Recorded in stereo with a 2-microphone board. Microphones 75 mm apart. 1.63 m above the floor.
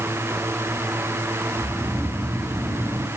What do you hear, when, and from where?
1.6 s snoring: 30° right (ahead or behind), 1.7 m